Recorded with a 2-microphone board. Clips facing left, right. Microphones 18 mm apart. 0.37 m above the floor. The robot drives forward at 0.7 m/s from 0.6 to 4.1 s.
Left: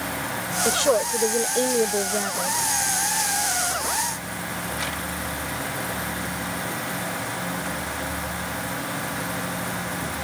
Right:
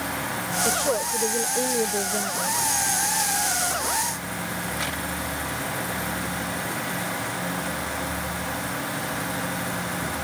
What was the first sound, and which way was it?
A woman speaking, 40° left (ahead or behind).